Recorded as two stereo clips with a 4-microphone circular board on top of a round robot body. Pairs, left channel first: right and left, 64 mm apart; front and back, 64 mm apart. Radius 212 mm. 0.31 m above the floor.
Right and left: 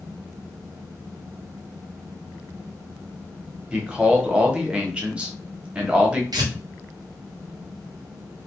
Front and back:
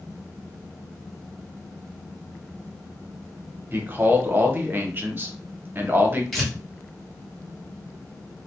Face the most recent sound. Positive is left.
turn(degrees=90)